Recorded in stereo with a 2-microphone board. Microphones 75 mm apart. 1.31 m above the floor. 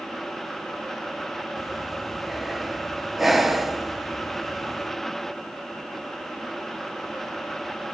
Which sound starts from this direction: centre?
Breathing, at 1.6 s.